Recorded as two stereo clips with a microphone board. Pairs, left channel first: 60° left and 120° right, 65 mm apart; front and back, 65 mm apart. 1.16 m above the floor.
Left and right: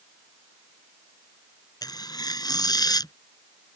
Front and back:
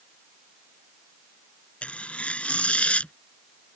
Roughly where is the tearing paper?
Left.